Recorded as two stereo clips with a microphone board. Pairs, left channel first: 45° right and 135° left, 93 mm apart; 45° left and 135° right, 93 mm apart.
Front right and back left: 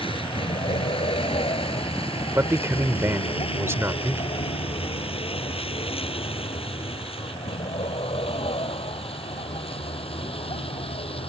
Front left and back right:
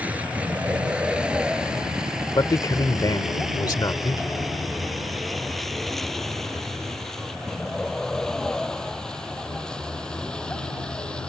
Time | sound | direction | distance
0.0 | a vehicle | 60° right | ?
2.4 | a man speaking | 80° left | ?